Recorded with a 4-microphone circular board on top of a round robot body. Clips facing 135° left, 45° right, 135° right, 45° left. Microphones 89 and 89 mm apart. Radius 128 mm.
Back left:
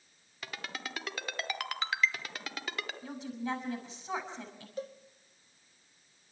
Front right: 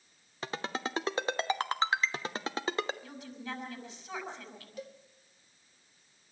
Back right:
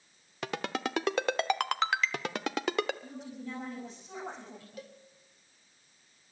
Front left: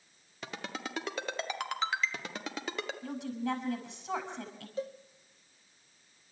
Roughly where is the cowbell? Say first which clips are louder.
Back left 5 dB, front left 12 dB; left.